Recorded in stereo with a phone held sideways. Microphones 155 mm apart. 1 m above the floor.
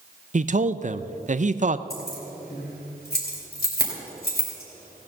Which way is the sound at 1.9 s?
85° left.